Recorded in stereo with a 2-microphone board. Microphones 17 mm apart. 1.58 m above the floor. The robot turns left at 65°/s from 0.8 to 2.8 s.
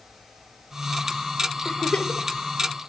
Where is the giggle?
75° left (ahead or behind), 0.8 m; by 2.3 s 50° left (ahead or behind), 0.8 m.